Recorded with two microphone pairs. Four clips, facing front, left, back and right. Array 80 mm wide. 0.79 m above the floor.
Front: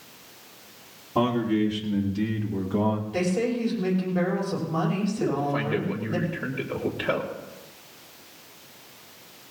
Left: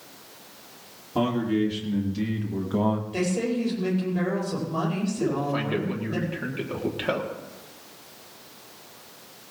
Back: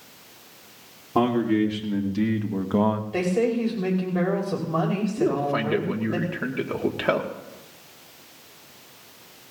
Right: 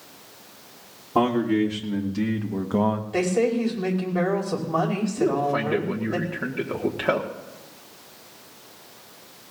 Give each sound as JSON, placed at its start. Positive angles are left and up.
{"t": 1.1, "sound": "a man speaking", "azimuth_deg": -135, "distance_m": 2.5}
{"t": 3.1, "sound": "a woman speaking", "azimuth_deg": -125, "distance_m": 5.0}
{"t": 5.2, "sound": "a man speaking", "azimuth_deg": -155, "distance_m": 1.6}